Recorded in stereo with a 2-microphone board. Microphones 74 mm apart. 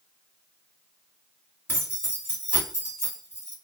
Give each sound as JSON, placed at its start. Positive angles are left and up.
{"t": 1.7, "sound": "keys jangling", "side_deg": 30, "distance_m": 1.8}